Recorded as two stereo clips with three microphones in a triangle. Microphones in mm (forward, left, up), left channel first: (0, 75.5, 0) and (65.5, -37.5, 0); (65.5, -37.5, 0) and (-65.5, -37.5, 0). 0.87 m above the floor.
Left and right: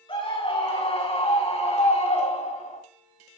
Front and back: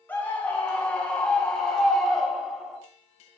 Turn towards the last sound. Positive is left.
turn(degrees=90)